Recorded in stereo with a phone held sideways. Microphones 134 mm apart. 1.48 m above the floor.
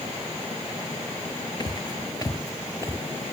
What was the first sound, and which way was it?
Footsteps, 35° left (ahead or behind).